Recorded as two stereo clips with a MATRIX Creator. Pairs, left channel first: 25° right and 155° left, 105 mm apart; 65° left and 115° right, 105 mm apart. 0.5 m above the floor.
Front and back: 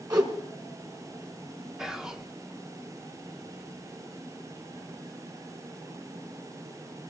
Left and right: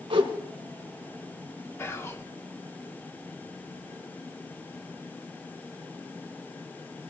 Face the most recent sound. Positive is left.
turn(degrees=80)